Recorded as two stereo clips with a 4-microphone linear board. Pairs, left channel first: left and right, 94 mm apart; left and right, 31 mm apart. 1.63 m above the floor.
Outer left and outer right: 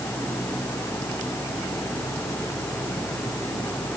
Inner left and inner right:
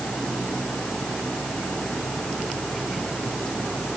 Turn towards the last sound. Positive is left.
No sound to turn to.